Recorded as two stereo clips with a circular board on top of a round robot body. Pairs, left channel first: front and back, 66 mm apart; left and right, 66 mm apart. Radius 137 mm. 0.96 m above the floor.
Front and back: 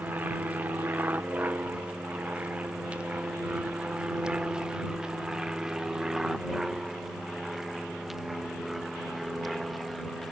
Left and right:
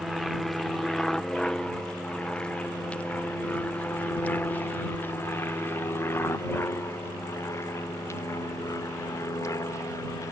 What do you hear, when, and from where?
0.0 s an aircraft: straight behind; by 10.3 s 90° left